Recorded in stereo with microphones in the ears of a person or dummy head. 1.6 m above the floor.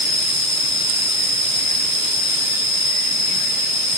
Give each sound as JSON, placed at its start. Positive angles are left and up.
{"t": 0.0, "sound": "an insect", "side_deg": -70, "distance_m": 1.8}